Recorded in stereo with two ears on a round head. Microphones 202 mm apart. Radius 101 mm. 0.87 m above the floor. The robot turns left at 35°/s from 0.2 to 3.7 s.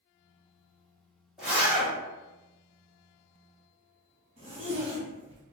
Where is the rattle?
No rattle in this recording.